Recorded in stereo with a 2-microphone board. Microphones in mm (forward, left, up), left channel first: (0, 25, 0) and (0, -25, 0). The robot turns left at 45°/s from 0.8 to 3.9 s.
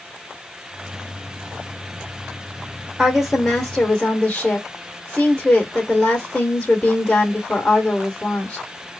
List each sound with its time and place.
3.0 s a woman speaking: 170° right, 1.4 m; by 8.7 s 150° left, 1.4 m